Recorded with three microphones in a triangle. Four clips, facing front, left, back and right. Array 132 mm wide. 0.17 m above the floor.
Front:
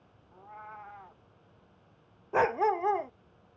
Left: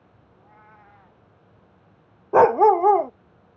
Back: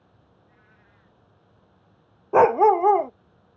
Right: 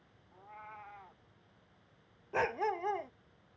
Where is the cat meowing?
10° right.